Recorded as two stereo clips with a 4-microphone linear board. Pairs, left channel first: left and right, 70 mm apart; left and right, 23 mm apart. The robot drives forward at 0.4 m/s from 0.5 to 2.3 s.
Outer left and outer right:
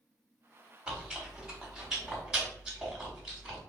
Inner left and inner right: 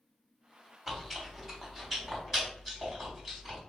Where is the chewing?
15° right (ahead or behind), 0.7 m; by 3.6 s 10° right (ahead or behind), 1.2 m.